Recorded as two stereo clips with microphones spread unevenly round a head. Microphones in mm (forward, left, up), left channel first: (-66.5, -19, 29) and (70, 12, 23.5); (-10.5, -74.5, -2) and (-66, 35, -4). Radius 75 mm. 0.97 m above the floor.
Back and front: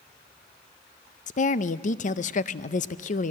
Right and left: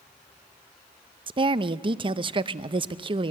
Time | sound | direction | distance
1.3 | a woman speaking | 160° left | 0.6 m